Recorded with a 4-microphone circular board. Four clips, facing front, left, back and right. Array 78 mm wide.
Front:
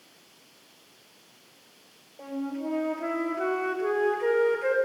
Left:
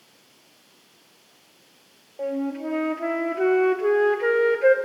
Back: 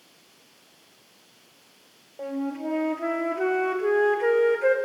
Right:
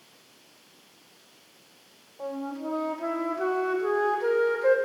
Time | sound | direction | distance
2.2 | a flute | 115° left | 1.6 m